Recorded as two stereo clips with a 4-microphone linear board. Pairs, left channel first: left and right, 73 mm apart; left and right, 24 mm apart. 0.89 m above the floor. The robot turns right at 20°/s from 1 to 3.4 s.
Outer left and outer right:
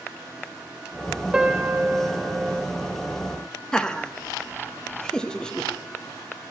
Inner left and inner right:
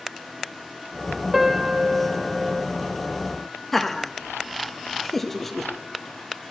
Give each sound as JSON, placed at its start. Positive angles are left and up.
{"t": 1.3, "sound": "a piano", "side_deg": -10, "distance_m": 1.6}
{"t": 3.7, "sound": "laughter", "side_deg": 10, "distance_m": 0.8}